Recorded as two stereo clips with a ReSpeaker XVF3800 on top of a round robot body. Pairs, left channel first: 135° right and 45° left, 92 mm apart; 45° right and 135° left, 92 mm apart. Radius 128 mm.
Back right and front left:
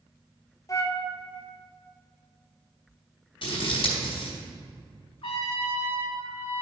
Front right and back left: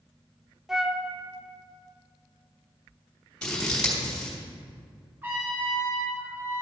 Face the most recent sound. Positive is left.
turn(degrees=-155)